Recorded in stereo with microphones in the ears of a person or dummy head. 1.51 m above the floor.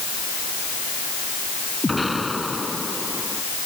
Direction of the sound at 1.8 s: Centre (ahead or behind).